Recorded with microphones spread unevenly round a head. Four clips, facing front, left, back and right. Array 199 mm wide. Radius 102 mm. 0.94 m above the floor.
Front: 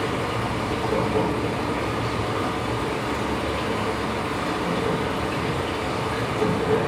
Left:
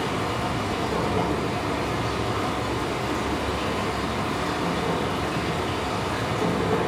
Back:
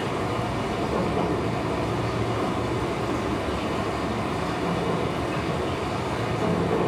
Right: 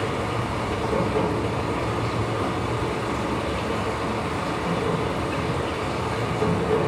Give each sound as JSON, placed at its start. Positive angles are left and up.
{"t": 0.0, "sound": "running water", "azimuth_deg": 10, "distance_m": 6.5}